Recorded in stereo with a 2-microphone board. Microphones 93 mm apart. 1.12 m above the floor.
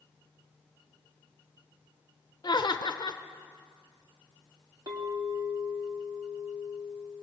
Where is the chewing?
I don't hear chewing.